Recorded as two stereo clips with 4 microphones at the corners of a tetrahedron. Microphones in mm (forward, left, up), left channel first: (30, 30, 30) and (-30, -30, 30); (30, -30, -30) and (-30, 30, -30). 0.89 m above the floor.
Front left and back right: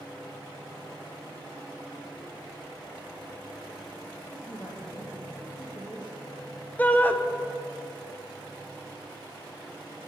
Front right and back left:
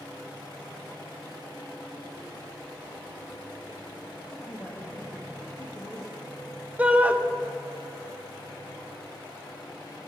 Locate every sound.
4.3 s a man speaking: 10° left, 1.2 m
6.8 s a shout: 95° left, 0.6 m